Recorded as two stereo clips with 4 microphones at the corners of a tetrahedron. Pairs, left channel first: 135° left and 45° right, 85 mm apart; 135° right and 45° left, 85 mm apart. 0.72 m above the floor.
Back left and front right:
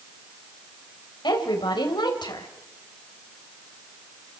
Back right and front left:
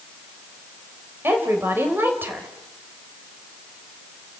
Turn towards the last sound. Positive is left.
turn(degrees=110)